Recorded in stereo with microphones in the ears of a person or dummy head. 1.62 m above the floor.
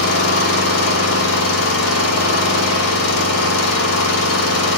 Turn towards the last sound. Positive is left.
turn(degrees=85)